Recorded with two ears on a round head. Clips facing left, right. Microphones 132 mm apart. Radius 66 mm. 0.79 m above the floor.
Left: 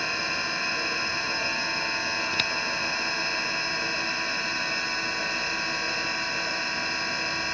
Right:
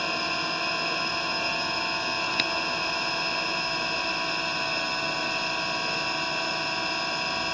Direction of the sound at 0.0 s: 15° right (ahead or behind).